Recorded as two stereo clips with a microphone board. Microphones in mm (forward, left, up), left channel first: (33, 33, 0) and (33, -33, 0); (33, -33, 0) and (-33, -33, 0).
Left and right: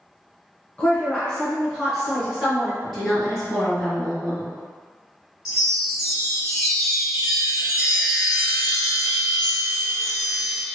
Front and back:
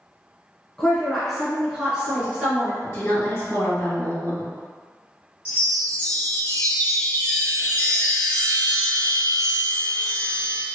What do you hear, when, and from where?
0.8 s a woman speaking: 55° left, 1.2 m; by 2.7 s 155° right, 1.3 m
2.8 s a woman speaking: straight ahead, 1.9 m
5.5 s a chime: 10° right, 2.0 m